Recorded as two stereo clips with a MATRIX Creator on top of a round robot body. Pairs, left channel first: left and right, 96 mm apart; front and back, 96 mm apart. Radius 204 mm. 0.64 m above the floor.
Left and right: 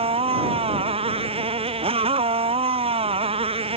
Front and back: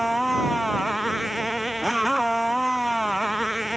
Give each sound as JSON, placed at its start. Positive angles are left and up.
{"t": 0.0, "sound": "a motorcycle", "azimuth_deg": -90}